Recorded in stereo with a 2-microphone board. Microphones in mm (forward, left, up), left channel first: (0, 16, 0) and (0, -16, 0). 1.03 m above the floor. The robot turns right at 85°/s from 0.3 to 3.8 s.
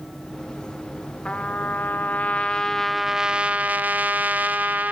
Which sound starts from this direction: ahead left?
A trumpet, at 1.2 s.